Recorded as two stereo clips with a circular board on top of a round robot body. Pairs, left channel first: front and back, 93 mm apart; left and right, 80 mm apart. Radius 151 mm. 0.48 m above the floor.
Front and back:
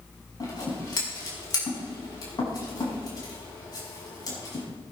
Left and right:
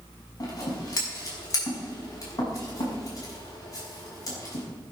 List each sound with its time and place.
0.4 s scissors: 45° left, 6 m